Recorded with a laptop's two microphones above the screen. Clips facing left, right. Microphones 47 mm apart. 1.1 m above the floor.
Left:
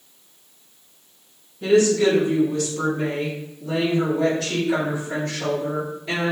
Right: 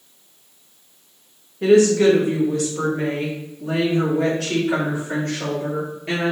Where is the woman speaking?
65° right (ahead or behind), 0.9 m; by 6.3 s 85° right, 3.5 m.